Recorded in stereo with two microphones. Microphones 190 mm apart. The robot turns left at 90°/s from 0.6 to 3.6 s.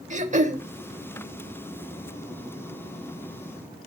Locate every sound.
0.1 s throat clearing: 40° right (ahead or behind), 0.7 m